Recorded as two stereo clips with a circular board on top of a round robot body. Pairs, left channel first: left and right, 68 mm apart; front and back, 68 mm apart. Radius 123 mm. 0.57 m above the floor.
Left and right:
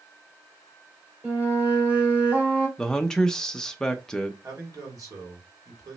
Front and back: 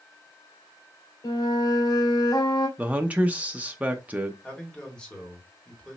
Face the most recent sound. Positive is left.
turn(degrees=-75)